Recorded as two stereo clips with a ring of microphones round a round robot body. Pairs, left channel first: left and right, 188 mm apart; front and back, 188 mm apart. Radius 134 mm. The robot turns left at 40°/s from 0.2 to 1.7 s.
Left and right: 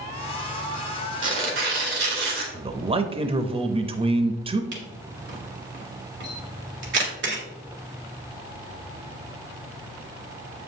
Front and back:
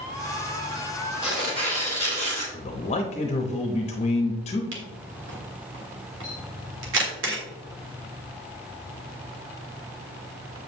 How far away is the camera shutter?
About 1.4 m.